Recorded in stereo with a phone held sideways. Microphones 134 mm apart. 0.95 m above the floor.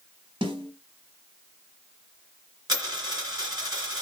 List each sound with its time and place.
0.4 s a snare drum: 35° right (ahead or behind), 0.9 m
2.7 s a dropped coin: 30° right (ahead or behind), 1.9 m